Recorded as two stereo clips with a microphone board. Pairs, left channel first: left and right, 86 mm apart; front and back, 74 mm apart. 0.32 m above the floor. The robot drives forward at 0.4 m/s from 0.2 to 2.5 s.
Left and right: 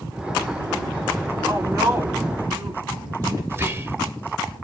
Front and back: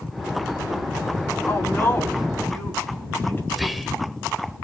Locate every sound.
1.5 s a woman speaking: 40° right, 3 m; by 3.4 s 50° right, 2.5 m
3.5 s whispering: 90° right, 0.9 m